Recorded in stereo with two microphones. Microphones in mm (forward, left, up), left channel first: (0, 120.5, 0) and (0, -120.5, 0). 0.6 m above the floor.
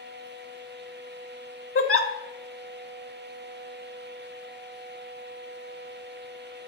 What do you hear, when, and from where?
1.8 s a giggle: 65° left (ahead or behind), 0.7 m